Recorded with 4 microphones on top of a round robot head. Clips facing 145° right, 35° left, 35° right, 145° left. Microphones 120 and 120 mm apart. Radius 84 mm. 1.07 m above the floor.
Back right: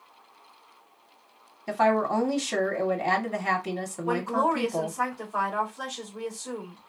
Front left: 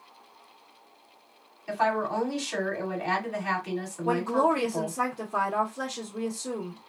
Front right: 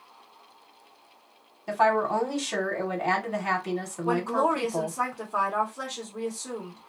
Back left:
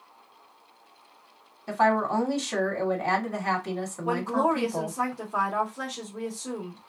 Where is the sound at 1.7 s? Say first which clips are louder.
Back right 4 dB, even; 115° right, 1.2 m.